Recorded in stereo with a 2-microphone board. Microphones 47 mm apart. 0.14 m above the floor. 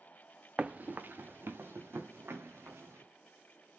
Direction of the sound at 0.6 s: 20° right (ahead or behind).